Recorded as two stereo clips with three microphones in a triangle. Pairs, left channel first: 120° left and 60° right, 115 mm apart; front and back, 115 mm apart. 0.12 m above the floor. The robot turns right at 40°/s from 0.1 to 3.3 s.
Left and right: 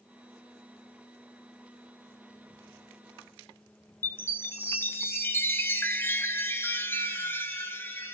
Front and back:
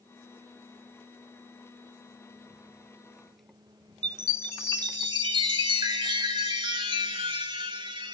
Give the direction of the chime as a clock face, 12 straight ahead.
6 o'clock.